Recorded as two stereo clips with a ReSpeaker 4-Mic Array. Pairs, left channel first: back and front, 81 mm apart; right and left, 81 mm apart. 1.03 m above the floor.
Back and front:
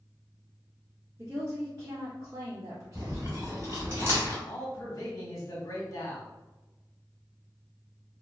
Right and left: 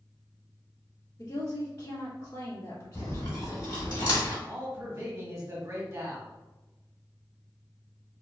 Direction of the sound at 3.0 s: 60° right.